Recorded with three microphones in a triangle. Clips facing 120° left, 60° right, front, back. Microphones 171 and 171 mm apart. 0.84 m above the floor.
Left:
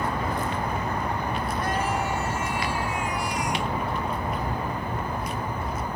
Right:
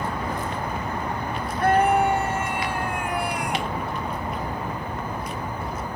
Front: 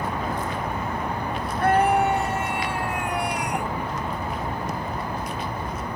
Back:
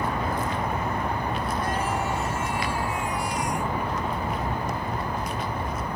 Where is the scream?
30° right; by 3.7 s 25° right.